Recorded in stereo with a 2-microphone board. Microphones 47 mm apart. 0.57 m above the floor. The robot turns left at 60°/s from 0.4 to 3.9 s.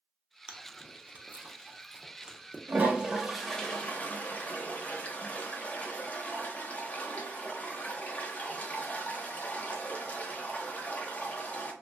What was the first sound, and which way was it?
Chewing, 20° right (ahead or behind).